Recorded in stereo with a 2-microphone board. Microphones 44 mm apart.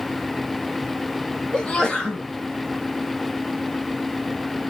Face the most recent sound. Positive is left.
turn(degrees=20)  # may be behind; listen again after turning